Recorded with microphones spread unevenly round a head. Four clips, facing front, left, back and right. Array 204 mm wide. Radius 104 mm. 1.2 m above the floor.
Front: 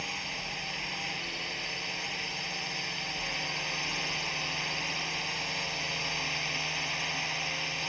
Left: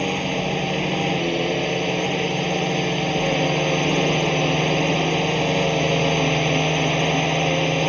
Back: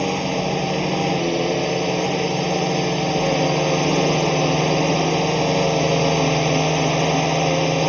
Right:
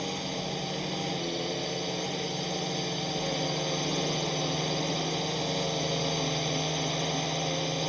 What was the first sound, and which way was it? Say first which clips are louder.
A drone: left 10 dB, back 19 dB; 145° left.